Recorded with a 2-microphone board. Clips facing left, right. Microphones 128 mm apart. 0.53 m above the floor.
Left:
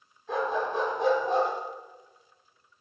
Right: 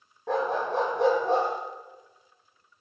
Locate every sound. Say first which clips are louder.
0.3 s a dog barking: right 2 dB; 80° right, 8.5 m; by 1.5 s 85° right, 8 m